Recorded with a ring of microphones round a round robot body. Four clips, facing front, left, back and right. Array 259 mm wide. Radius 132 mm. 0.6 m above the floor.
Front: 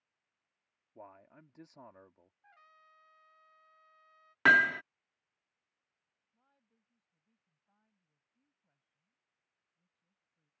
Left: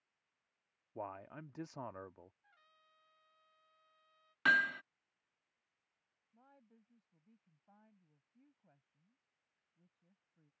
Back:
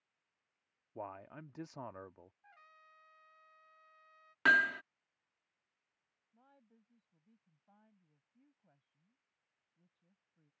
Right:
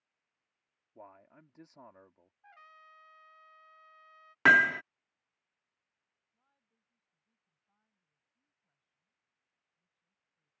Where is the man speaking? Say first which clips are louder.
Left 8 dB, back 7 dB; 135° left.